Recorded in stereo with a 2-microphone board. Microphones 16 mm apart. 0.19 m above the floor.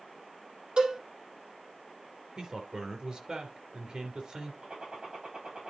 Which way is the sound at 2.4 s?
60° right (ahead or behind).